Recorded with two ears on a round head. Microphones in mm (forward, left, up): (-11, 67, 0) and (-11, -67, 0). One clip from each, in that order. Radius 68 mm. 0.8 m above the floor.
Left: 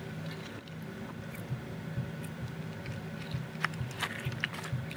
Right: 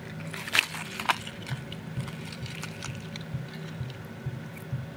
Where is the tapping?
40° right (ahead or behind), 1.1 m.